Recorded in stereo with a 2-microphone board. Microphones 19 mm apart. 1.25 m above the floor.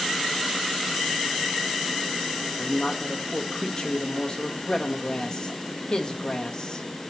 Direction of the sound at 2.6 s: 40° left (ahead or behind).